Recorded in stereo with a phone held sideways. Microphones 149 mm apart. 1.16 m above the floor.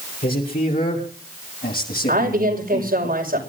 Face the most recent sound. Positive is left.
turn(degrees=-85)